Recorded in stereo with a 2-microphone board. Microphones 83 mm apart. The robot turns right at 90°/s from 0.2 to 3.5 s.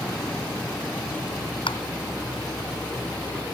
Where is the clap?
85° left; by 1.8 s 80° left.